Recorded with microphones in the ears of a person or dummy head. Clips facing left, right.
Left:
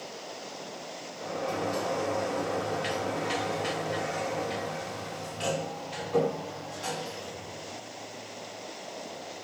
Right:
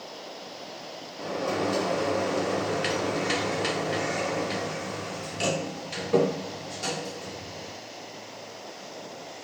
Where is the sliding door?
70° right (ahead or behind), 0.8 m.